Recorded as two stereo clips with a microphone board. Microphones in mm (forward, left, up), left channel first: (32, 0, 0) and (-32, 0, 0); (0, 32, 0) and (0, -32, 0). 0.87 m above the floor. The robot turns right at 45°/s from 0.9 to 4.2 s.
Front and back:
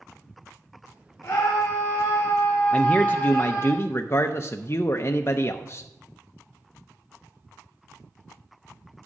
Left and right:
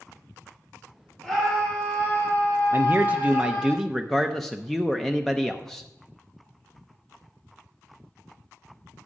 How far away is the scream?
About 2 m.